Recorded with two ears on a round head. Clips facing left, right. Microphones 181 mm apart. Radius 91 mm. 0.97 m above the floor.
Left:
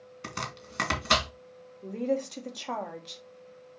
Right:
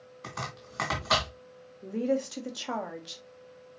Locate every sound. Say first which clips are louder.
0.2 s chopping: left 1 dB; 35° left (ahead or behind), 2 m
1.8 s a woman speaking: right 1 dB; 10° right (ahead or behind), 1.4 m